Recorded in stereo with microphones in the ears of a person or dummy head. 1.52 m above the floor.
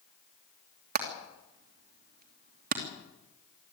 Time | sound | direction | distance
0.9 | hammering | 50° right (ahead or behind) | 2.5 m